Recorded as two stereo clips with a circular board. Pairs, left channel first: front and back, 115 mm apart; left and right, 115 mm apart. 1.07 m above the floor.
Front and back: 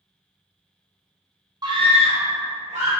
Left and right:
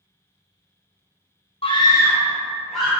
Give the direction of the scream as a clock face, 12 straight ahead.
8 o'clock.